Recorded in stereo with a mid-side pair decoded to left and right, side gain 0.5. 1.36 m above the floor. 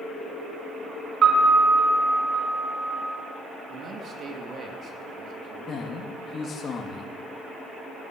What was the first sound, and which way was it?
A piano, 45° right.